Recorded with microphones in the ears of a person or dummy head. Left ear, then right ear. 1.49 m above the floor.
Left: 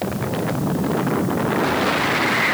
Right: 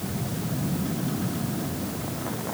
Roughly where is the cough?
I don't hear a cough.